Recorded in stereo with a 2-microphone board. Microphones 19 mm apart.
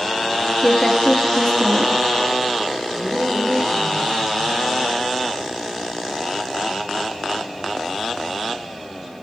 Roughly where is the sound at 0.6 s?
Centre.